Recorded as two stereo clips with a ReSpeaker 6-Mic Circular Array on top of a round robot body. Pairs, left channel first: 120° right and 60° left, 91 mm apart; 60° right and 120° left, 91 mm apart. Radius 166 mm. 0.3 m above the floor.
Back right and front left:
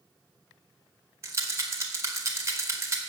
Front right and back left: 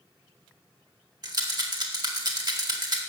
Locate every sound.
1.2 s a rattle: 105° left, 2 m